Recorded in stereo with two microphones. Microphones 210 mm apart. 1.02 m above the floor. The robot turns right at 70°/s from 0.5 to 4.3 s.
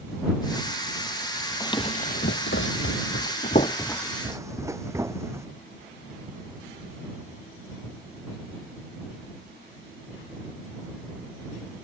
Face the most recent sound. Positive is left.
turn(degrees=-10)  # may be behind; listen again after turning